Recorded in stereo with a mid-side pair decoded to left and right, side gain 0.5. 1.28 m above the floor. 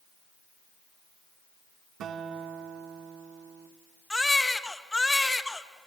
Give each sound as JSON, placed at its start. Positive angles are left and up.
{"t": 2.0, "sound": "a guitar", "azimuth_deg": -60, "distance_m": 2.0}
{"t": 4.1, "sound": "a baby crying", "azimuth_deg": 15, "distance_m": 1.4}